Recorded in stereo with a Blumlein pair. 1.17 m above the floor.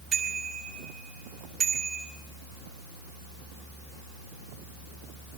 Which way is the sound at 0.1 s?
20° right.